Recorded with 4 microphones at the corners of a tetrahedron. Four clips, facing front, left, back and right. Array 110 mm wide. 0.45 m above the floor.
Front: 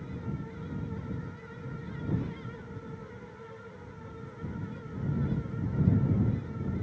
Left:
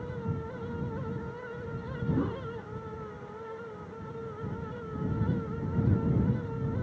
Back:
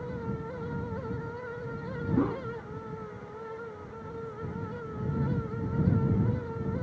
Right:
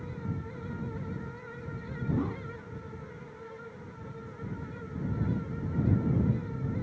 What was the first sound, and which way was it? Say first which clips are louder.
A whoosh: left 1 dB, back 12 dB; 175° left.